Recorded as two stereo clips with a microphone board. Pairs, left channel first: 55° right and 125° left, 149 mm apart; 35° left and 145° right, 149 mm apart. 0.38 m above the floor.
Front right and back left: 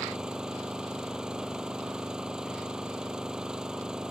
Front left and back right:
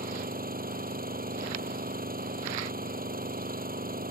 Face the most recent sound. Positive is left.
turn(degrees=-150)